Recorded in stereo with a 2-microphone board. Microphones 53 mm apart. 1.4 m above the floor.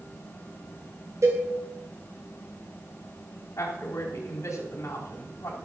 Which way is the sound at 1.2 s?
70° right (ahead or behind).